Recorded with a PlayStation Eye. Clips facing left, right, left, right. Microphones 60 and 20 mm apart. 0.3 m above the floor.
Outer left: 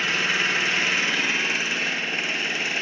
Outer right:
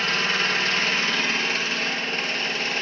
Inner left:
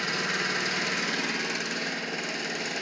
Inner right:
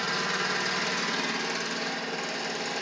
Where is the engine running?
15° left (ahead or behind), 1.7 m.